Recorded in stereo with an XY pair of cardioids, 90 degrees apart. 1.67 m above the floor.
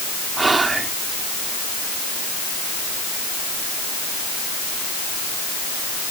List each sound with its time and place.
0.4 s whispering: 30° right